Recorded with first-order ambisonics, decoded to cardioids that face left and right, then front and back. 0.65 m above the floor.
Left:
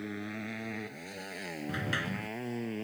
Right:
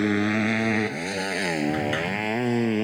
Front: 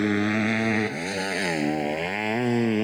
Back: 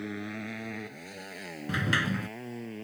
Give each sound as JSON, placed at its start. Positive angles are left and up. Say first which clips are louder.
{"t": 0.0, "sound": "a motorcycle", "louder": "right 16 dB, front 14 dB", "azimuth_deg": -50}
{"t": 1.7, "sound": "a sliding door", "louder": "right 9 dB, front 2 dB", "azimuth_deg": -170}